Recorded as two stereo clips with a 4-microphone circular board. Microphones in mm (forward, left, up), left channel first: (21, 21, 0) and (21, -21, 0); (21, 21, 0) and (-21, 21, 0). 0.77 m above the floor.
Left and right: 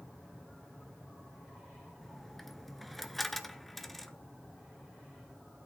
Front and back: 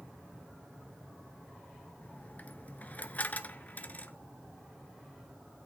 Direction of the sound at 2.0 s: Straight ahead.